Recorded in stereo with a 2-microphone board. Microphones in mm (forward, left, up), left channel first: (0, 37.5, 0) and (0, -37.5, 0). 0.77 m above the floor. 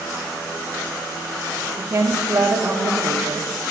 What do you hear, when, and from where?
1.8 s a woman speaking: 40° right (ahead or behind), 1.0 m